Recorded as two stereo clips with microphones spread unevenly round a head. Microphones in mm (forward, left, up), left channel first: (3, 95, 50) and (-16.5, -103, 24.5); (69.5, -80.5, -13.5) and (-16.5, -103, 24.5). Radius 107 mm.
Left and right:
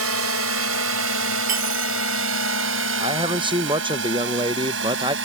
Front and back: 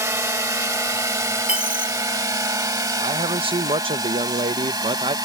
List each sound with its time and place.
0.0 s a drone: 110° right; by 5.2 s 125° right
1.5 s a dropped coin: 95° right
3.0 s a man speaking: 140° right